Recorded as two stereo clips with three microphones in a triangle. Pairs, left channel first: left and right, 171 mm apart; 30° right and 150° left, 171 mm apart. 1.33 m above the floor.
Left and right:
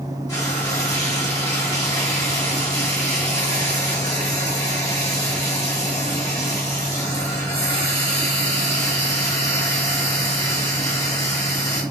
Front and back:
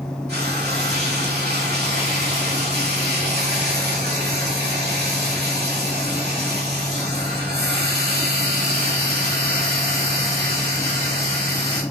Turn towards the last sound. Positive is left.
turn(degrees=160)